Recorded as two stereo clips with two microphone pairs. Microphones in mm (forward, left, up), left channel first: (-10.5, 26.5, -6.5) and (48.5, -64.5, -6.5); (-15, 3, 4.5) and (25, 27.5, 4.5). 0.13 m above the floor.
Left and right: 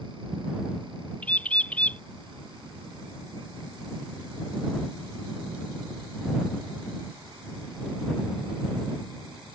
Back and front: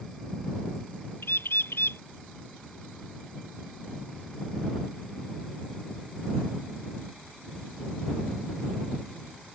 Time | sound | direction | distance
1.2 | a bird | 160° right | ?